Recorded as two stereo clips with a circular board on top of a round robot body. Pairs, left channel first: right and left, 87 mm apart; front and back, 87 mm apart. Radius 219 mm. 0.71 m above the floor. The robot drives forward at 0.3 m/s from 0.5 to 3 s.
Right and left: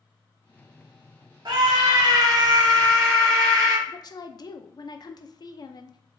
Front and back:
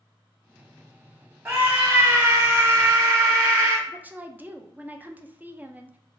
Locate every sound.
1.4 s a scream: 120° left, 0.9 m; by 3.8 s 140° left, 1.2 m
3.9 s a woman speaking: 115° right, 0.5 m